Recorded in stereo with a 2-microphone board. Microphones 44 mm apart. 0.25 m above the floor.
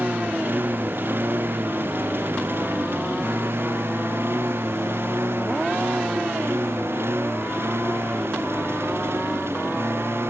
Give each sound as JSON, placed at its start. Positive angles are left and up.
{"t": 0.0, "sound": "a lawn mower", "side_deg": -55}